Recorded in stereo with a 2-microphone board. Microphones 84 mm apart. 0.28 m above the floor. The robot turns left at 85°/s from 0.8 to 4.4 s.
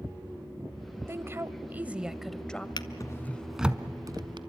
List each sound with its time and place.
1.1 s a woman speaking: 30° right (ahead or behind), 0.9 m; by 2.7 s 15° left (ahead or behind), 0.9 m
2.8 s a drawer: 60° left (ahead or behind), 0.9 m; by 4.4 s 70° right (ahead or behind), 0.9 m